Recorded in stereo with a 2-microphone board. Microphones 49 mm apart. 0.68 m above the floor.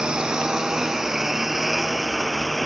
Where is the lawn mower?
20° right (ahead or behind); by 2.7 s centre (ahead or behind).